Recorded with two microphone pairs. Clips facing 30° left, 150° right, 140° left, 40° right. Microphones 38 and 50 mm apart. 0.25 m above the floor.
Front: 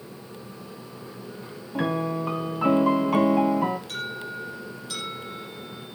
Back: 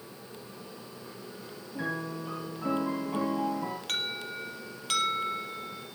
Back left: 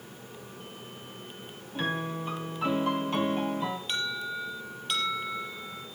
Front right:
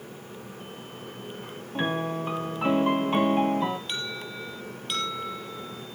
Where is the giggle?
I don't hear a giggle.